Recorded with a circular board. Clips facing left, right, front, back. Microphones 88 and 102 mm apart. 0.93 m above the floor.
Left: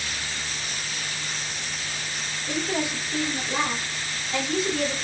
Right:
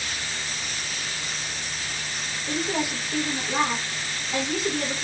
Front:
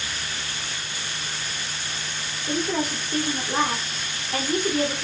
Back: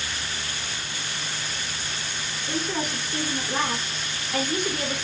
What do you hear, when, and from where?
2.5 s a woman speaking: 25° right, 1.1 m